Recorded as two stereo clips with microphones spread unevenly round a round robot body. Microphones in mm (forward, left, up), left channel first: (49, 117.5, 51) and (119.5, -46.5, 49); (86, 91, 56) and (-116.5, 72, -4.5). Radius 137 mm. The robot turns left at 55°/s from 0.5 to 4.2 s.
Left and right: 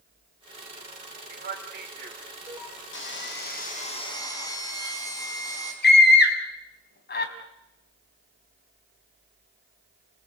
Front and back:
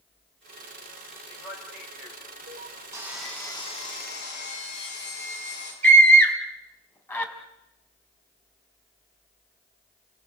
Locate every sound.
1.3 s a man speaking: 70° right, 1.6 m; by 2.8 s 155° right, 1.6 m
2.9 s sawing: 115° left, 5.5 m; by 5.7 s 45° left, 5.5 m
5.8 s a scream: 90° left, 4.5 m